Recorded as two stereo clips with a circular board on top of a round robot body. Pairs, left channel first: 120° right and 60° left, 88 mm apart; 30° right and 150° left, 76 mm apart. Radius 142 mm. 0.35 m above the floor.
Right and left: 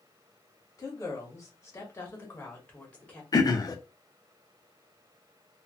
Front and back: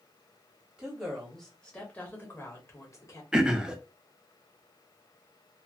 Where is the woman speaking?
135° right, 1.3 m; by 3.2 s 45° right, 1.5 m.